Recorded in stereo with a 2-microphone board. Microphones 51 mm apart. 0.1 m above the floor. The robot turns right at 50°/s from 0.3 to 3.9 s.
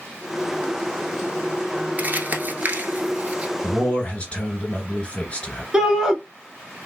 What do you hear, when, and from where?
2.0 s crumpling: 40° right (ahead or behind), 0.8 m; by 3.5 s 25° right (ahead or behind), 0.8 m
3.6 s a man speaking: 20° left (ahead or behind), 1.8 m; by 5.6 s 25° left (ahead or behind), 1.8 m
5.7 s a shout: 15° right (ahead or behind), 1.3 m